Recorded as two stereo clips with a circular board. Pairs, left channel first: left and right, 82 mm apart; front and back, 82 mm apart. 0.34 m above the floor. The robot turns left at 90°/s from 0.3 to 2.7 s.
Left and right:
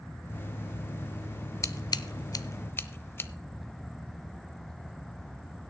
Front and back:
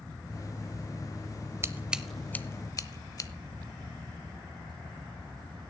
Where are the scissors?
130° left, 0.5 m; by 3.3 s 35° left, 0.5 m.